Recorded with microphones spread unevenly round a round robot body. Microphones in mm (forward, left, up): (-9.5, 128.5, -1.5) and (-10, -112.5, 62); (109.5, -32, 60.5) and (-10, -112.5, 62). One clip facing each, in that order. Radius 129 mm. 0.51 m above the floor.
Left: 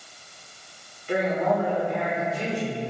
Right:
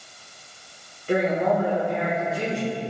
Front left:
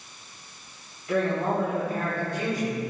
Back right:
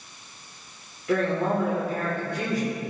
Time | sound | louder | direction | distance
1.1 | a woman speaking | right 2 dB, back right 1 dB | 145° right | 1.9 m